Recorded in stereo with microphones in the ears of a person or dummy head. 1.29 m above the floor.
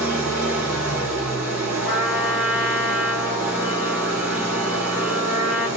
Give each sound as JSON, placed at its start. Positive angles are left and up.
{"t": 0.0, "sound": "an engine running", "side_deg": -10, "distance_m": 3.0}
{"t": 1.9, "sound": "a trumpet", "side_deg": -15, "distance_m": 6.0}